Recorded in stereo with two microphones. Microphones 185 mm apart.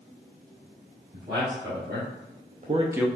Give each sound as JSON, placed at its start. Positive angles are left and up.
{"t": 1.1, "sound": "a man speaking", "side_deg": -75, "distance_m": 2.0}